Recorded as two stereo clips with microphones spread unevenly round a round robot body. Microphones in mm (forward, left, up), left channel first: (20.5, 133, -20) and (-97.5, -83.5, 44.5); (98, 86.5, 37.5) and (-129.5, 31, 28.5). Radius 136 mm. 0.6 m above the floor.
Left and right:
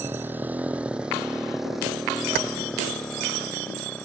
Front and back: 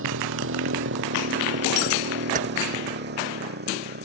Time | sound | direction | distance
0.0 | a motorcycle | 160° left | ?
2.4 | keys jangling | 105° right | ?